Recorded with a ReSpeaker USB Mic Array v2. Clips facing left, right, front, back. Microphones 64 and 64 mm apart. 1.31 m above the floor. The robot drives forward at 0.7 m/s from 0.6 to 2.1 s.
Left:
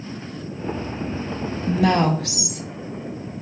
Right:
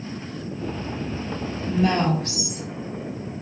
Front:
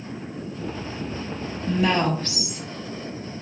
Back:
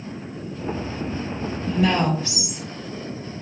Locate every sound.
1.7 s a woman speaking: 80° left, 0.8 m; by 2.6 s 100° left, 0.8 m